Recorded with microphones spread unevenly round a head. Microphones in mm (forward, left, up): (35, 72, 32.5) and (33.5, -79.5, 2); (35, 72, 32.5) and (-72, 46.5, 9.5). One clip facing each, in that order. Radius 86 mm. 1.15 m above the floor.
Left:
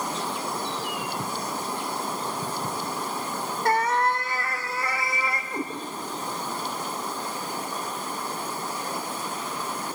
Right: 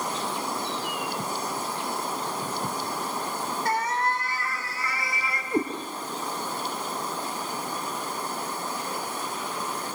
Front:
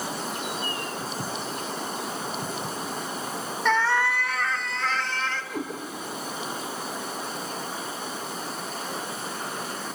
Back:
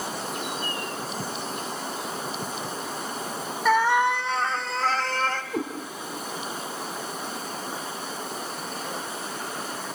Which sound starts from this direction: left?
A cat meowing, at 3.6 s.